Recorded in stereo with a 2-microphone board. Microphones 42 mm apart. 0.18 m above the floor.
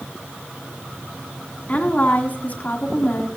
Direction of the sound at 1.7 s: 35° left (ahead or behind).